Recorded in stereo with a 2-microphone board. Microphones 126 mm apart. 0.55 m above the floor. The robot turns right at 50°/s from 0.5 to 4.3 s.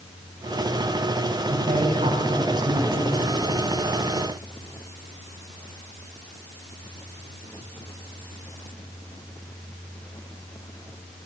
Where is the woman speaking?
90° right, 4.5 m; by 3.2 s straight ahead, 4.5 m.